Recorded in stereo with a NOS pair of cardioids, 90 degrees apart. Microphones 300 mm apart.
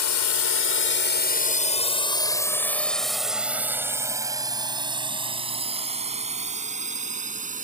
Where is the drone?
60° left; by 7.6 s 25° right.